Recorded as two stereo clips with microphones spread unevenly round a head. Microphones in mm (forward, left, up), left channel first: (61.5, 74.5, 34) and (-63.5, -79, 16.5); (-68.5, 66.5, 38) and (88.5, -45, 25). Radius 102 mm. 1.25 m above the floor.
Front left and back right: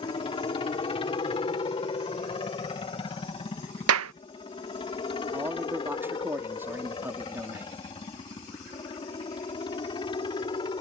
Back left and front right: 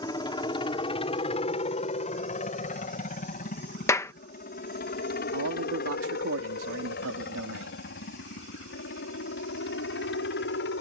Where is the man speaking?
50° right.